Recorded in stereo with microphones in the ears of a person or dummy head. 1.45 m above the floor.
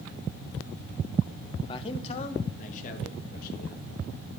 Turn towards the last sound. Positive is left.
turn(degrees=50)  # may be behind; listen again after turning